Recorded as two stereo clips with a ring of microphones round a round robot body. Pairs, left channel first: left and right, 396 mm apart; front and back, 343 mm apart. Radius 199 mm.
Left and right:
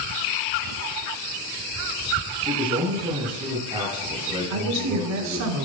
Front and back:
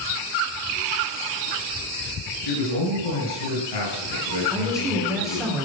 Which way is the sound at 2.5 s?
10° right.